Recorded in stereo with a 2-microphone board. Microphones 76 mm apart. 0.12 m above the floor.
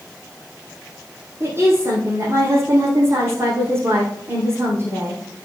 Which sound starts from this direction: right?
A woman speaking, at 1.4 s.